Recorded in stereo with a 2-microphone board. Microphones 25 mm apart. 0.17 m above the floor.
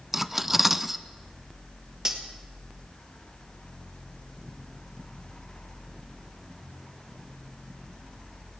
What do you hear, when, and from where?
0.1 s cutlery clinking: 15° right (ahead or behind), 0.7 m
2.0 s cutlery clinking: 25° right (ahead or behind), 2.5 m